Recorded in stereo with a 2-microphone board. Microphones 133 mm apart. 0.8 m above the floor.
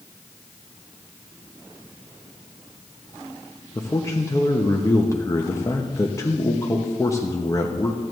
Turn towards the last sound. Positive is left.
turn(degrees=25)  # may be behind; listen again after turning